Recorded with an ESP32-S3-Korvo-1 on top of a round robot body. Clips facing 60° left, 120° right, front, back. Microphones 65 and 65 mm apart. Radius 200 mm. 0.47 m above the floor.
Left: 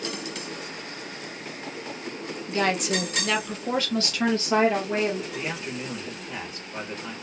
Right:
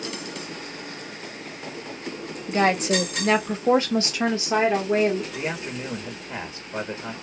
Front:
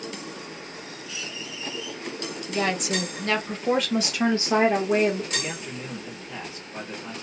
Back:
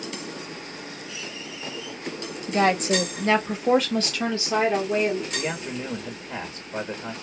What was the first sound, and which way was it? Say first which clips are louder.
A woman speaking: right 4 dB, back 5 dB; 165° right.